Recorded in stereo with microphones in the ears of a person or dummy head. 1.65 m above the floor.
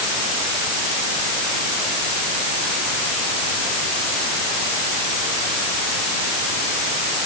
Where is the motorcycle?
I don't hear a motorcycle.